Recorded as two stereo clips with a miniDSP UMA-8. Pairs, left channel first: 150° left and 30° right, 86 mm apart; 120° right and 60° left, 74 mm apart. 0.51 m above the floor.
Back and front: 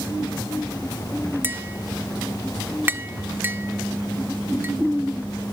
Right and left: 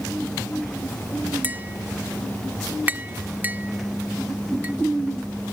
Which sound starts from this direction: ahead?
Tapping, at 1.4 s.